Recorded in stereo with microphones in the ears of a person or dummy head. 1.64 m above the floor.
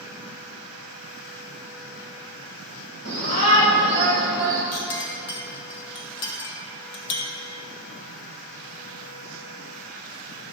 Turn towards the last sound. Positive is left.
turn(degrees=60)  # may be behind; listen again after turning